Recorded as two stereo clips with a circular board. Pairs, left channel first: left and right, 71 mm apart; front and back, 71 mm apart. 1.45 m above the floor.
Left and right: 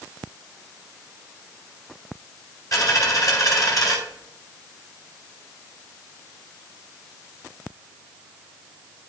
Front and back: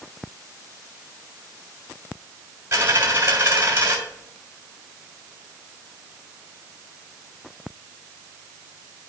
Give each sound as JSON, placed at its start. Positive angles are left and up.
{"t": 2.7, "sound": "a dropped coin", "azimuth_deg": 125, "distance_m": 3.5}